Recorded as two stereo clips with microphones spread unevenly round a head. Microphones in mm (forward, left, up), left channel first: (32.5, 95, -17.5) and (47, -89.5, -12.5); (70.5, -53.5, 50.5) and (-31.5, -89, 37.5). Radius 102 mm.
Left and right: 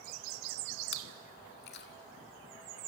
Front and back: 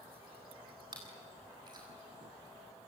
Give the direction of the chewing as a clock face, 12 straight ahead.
8 o'clock.